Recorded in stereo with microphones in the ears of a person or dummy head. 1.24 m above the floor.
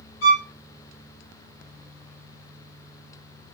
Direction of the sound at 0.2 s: 85° left.